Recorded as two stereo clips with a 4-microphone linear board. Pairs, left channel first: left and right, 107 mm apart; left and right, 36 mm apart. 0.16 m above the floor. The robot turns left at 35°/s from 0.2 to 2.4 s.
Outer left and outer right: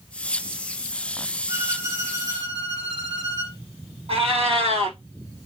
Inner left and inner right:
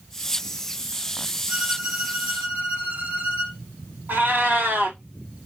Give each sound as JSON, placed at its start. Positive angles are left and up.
{"t": 1.5, "sound": "a violin", "azimuth_deg": -15, "distance_m": 2.0}
{"t": 4.1, "sound": "a cat meowing", "side_deg": -65, "distance_m": 1.4}